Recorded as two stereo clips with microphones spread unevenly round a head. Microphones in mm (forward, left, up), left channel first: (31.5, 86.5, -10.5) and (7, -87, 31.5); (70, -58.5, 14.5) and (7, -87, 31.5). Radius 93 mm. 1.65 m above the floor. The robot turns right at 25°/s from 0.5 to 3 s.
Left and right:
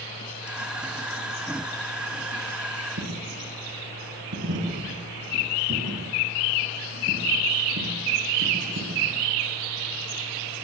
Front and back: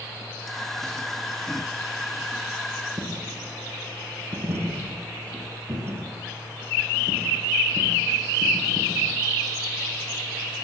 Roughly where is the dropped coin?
Behind right.